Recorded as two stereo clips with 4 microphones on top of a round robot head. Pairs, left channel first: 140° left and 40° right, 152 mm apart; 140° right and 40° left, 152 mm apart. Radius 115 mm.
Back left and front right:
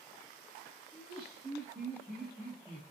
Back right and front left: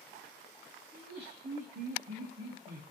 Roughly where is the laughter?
Ahead.